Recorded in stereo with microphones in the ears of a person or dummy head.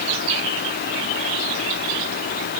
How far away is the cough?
I don't hear a cough.